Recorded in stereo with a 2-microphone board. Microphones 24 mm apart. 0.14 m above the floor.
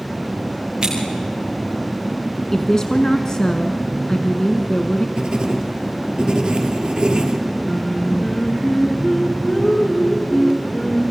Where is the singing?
25° left (ahead or behind), 5 m.